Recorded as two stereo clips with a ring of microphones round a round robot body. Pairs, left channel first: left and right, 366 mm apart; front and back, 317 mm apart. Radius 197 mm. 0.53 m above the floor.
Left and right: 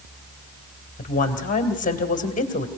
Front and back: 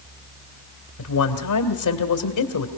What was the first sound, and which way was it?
A woman speaking, 20° left.